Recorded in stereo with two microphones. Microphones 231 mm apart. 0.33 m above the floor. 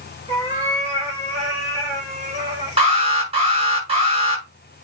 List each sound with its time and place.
0.3 s a cat meowing: 25° right (ahead or behind), 5.5 m; by 2.8 s 30° right (ahead or behind), 7 m
2.8 s an alarm: 25° right (ahead or behind), 6 m